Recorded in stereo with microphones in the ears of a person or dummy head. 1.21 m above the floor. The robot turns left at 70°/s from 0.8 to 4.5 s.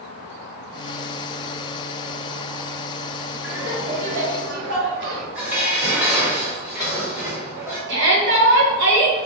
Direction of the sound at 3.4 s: Straight ahead.